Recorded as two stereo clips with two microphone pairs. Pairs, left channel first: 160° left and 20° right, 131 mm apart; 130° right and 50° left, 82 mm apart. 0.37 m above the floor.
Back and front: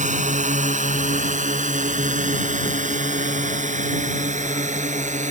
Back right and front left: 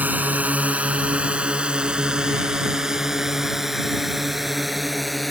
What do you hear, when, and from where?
0.0 s a drone: 15° right; by 5.3 s 40° right